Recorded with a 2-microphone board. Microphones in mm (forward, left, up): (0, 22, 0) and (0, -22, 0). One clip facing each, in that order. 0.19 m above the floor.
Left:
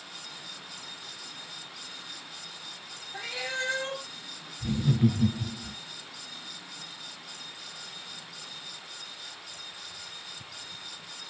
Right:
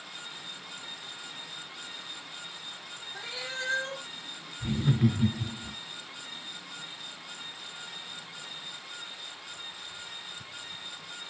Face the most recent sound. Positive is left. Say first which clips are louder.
# left 1 dB
turn(degrees=-20)  # may be behind; listen again after turning